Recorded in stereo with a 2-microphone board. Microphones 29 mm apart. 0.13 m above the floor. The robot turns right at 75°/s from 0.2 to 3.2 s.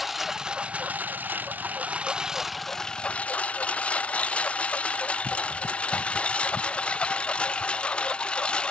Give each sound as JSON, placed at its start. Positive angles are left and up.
{"t": 0.0, "sound": "a lawn mower", "side_deg": -10}